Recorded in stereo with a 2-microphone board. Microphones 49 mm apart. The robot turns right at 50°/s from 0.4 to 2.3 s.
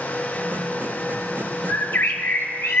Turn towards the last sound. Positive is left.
turn(degrees=75)